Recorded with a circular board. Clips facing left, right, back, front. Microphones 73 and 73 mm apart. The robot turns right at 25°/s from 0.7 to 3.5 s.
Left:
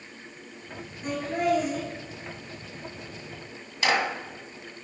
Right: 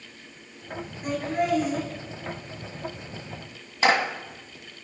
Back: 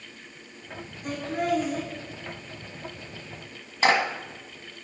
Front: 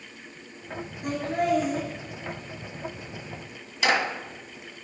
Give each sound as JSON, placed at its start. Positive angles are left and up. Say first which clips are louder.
{"t": 1.0, "sound": "laughter", "louder": "even, front 2 dB", "azimuth_deg": -10, "distance_m": 5.0}
{"t": 3.8, "sound": "a clap", "louder": "right 3 dB, back 2 dB", "azimuth_deg": -140, "distance_m": 1.4}